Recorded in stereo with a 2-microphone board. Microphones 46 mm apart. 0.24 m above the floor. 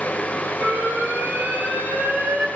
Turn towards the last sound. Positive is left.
turn(degrees=-55)  # may be behind; listen again after turning